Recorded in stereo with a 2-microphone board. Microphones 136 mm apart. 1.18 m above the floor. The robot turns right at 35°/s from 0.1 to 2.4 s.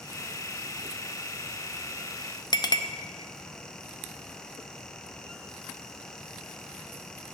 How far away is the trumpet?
No trumpet in this recording.